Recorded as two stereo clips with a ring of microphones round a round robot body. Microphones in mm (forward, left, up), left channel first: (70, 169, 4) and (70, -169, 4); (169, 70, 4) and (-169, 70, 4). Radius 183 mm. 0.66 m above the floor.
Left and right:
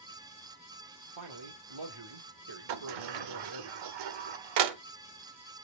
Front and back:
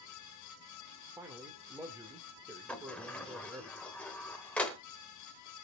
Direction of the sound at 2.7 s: 85° right.